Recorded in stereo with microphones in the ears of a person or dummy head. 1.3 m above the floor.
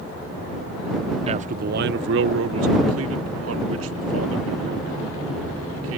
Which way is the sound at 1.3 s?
30° right (ahead or behind).